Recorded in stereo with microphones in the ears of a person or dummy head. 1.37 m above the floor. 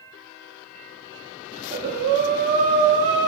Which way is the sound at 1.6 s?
35° right (ahead or behind).